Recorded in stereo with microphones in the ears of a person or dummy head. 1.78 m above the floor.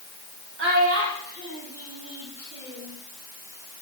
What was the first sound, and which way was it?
A child speaking, 65° right (ahead or behind).